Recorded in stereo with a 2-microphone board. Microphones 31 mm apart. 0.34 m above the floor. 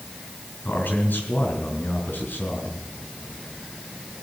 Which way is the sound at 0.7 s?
75° left (ahead or behind).